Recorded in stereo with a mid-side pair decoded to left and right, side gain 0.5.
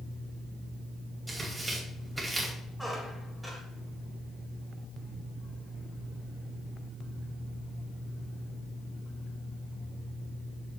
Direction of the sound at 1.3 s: 15° right.